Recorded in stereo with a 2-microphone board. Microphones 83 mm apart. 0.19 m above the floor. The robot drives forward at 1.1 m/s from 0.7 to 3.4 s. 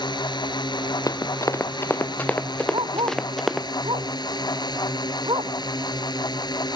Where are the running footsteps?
45° left (ahead or behind); by 3.7 s centre (ahead or behind).